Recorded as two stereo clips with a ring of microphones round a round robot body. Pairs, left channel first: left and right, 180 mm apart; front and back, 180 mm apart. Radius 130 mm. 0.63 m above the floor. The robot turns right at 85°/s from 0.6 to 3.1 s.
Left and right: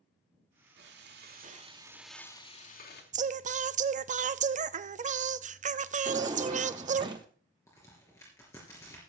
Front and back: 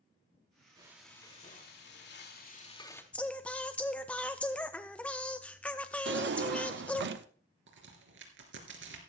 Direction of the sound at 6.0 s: 160° right.